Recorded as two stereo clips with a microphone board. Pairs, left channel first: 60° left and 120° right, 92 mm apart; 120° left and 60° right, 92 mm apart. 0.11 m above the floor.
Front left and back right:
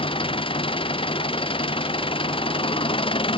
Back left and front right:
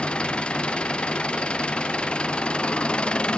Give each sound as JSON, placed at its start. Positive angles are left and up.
{"t": 0.0, "sound": "an engine running", "azimuth_deg": 40}